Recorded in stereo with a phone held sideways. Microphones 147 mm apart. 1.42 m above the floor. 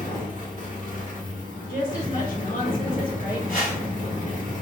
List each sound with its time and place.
0.0 s a fan: 65° left (ahead or behind), 1.3 m
1.7 s a woman speaking: 75° left (ahead or behind), 1.4 m
3.5 s a whoosh: 70° left (ahead or behind), 1.6 m